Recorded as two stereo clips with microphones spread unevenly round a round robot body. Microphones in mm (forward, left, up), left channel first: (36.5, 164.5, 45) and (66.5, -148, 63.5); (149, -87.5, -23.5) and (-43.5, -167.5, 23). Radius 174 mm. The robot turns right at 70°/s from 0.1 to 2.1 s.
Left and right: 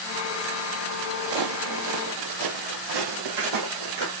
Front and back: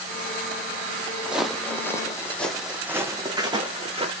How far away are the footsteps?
About 1.0 m.